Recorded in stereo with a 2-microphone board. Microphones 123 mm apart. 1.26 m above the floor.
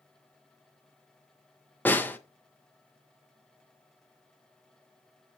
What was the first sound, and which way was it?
A snare drum, 15° left (ahead or behind).